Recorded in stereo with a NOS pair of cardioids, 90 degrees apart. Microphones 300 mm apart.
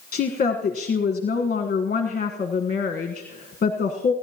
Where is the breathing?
I don't hear breathing.